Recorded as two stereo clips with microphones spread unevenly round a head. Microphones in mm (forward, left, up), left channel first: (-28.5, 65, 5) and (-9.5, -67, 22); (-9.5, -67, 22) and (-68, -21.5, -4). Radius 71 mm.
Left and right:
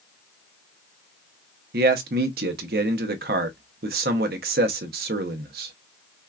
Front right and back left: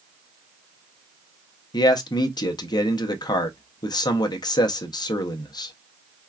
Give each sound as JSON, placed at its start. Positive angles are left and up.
{"t": 1.7, "sound": "a man speaking", "azimuth_deg": -55, "distance_m": 0.7}